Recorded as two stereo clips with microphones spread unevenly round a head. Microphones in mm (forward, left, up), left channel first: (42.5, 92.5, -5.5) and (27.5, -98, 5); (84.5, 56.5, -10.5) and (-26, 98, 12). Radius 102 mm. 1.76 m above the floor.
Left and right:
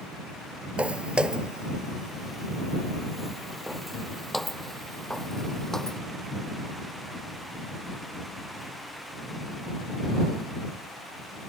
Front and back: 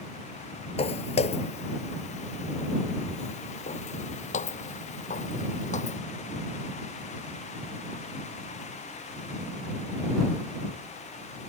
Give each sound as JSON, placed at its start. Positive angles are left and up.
{"t": 0.8, "sound": "footsteps", "azimuth_deg": -20}